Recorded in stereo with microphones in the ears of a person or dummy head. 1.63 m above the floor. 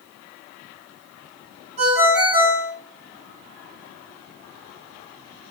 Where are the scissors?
I don't hear scissors.